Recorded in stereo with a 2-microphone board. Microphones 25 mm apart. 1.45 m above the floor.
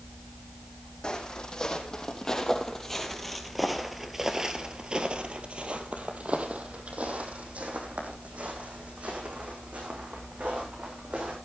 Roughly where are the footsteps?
Left.